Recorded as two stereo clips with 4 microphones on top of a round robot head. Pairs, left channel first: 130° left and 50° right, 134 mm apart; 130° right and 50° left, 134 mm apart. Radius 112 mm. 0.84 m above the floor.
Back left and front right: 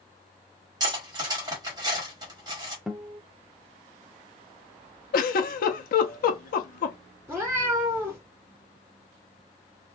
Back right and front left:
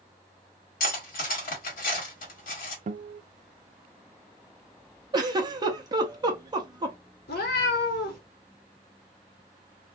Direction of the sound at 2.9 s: 35° left.